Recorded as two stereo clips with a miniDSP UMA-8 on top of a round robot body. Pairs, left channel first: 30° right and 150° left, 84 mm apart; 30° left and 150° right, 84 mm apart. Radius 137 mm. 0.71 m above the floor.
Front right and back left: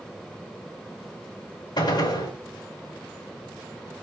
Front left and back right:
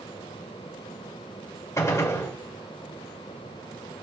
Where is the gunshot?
20° right, 2 m.